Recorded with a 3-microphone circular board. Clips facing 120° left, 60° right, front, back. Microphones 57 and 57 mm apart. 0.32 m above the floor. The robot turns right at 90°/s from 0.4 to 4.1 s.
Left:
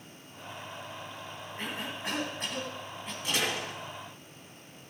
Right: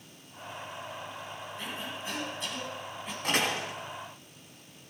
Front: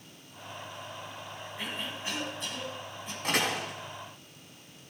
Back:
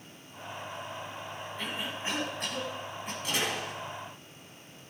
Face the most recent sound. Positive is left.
turn(degrees=45)